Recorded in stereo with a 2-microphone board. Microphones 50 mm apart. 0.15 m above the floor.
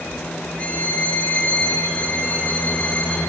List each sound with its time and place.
0.6 s a violin: 25° left (ahead or behind), 3 m